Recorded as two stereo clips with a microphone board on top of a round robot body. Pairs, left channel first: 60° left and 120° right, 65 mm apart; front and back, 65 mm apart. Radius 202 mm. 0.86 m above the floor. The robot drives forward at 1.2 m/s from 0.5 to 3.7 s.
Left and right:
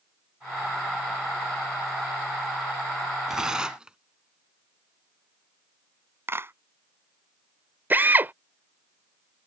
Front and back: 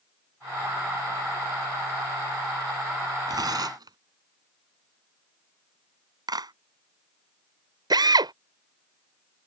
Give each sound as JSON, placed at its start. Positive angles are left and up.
{"t": 3.3, "sound": "tearing paper", "azimuth_deg": 160}
{"t": 6.3, "sound": "a clap", "azimuth_deg": -175}
{"t": 7.9, "sound": "a drill", "azimuth_deg": 180}